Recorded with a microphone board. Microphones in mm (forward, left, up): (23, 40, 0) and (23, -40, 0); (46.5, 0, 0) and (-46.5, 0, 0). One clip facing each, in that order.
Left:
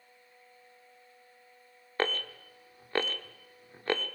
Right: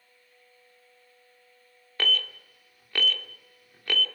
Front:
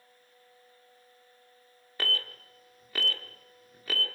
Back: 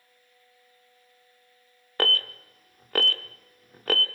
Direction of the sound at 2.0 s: 145° left.